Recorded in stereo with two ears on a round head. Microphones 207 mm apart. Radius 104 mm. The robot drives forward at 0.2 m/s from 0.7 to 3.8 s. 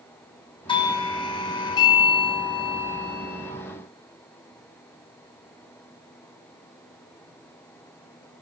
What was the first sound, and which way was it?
A doorbell, 20° left (ahead or behind).